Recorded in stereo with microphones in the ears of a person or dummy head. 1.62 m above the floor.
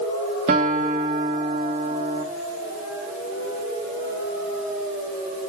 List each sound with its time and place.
0.5 s a guitar: 30° right (ahead or behind), 1.3 m